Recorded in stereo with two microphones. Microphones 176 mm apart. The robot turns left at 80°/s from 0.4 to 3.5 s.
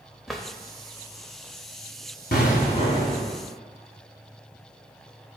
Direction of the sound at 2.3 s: 80° left.